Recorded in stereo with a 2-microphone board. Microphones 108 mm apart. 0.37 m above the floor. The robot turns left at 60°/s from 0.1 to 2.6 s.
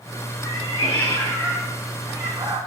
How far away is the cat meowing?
About 6 m.